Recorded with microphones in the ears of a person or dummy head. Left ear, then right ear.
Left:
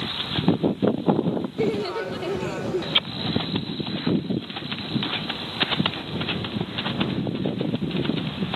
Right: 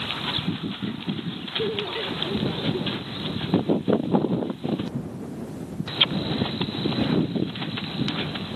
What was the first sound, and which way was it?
Laughter, 75° left (ahead or behind).